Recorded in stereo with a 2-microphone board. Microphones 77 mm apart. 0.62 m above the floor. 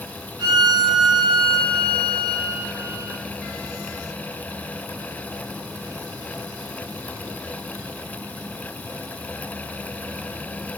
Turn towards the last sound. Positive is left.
turn(degrees=-85)